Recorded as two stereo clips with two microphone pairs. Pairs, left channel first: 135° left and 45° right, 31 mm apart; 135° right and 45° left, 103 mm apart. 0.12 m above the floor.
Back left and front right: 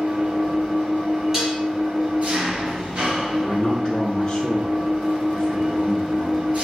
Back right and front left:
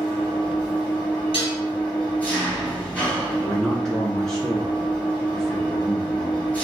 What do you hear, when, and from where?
0.0 s an engine running: 65° right, 2 m
1.3 s dishes clattering: 120° right, 1.9 m
3.4 s a man speaking: 150° left, 1.2 m